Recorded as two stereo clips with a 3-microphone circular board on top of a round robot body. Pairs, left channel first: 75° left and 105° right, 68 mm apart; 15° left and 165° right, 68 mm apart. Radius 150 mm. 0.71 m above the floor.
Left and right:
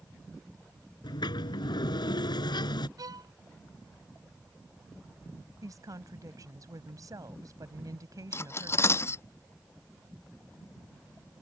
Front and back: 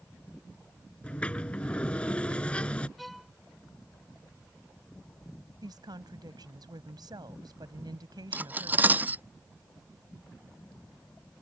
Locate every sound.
1.0 s a sliding door: 90° left
3.0 s a violin: 75° right
5.6 s a woman speaking: 145° right
8.3 s cutlery clinking: 125° left